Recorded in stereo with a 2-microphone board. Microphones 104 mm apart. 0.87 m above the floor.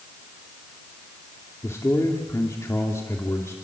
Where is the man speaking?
25° left (ahead or behind), 2.5 m.